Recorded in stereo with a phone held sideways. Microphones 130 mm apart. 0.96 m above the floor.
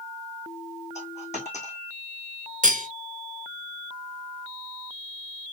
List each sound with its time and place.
0.9 s a dropped coin: 60° left (ahead or behind), 3 m
2.6 s cutlery clinking: 75° right (ahead or behind), 1.1 m